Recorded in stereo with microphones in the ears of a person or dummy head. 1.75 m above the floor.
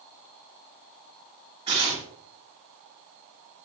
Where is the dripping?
No dripping in this recording.